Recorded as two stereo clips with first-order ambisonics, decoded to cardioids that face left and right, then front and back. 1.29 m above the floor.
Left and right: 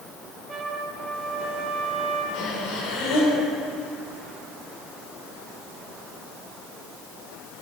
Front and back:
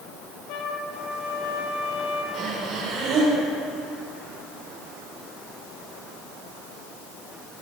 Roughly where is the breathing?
Behind left.